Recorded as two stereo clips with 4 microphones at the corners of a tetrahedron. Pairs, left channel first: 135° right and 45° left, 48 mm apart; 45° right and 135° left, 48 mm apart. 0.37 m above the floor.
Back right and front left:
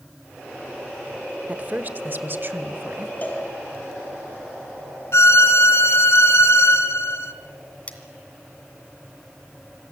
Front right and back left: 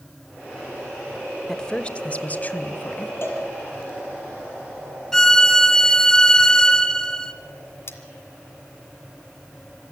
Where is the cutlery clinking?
75° right, 2 m.